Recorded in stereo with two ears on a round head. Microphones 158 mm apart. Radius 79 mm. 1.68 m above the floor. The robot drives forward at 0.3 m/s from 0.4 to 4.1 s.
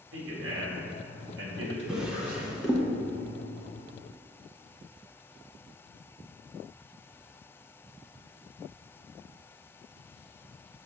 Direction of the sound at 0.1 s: 75° right (ahead or behind).